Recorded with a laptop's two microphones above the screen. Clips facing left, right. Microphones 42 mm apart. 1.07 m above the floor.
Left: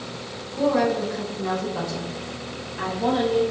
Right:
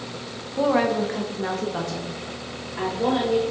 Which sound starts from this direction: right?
A woman speaking, at 0.5 s.